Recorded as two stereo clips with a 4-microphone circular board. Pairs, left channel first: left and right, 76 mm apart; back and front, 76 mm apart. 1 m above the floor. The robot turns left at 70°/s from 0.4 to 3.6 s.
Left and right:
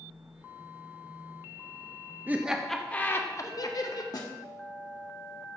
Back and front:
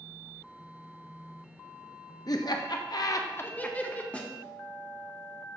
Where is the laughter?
155° right, 0.7 m; by 4.0 s 115° left, 0.7 m.